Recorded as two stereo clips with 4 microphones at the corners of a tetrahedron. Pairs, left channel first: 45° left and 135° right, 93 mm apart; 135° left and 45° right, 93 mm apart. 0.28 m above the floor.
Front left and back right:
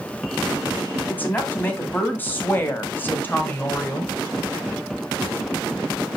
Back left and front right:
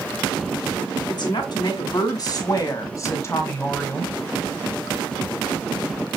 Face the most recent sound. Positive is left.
turn(degrees=80)